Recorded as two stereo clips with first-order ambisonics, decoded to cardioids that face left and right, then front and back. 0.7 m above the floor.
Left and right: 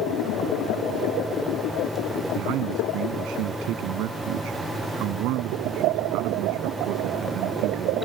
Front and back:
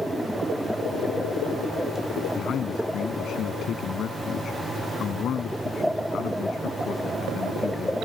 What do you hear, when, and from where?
2.4 s a man speaking: 55° right